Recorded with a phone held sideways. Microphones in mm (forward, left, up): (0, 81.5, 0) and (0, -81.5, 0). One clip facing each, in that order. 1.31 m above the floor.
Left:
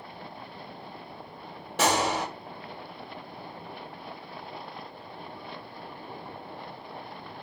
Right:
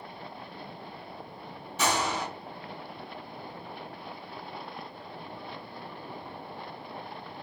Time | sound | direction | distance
1.8 | a gunshot | 80° left | 1.7 m